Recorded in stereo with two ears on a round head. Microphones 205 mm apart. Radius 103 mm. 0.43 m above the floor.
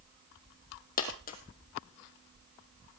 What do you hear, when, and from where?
1.0 s a dropped coin: 40° left (ahead or behind), 2 m